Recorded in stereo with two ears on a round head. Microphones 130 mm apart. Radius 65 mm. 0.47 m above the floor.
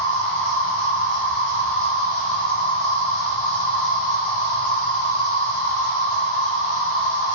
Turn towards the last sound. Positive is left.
turn(degrees=30)  # may be behind; listen again after turning